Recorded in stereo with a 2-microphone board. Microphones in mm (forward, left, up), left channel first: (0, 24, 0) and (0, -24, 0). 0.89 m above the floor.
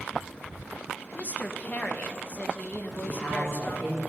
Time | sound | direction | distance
1.1 | a woman speaking | 35° left (ahead or behind) | 0.6 m
3.0 | a man speaking | 60° left (ahead or behind) | 2.5 m